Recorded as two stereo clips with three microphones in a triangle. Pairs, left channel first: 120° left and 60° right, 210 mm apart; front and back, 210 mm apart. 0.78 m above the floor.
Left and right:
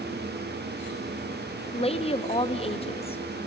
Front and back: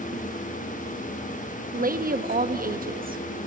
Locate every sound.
1.7 s a woman speaking: 165° left, 0.9 m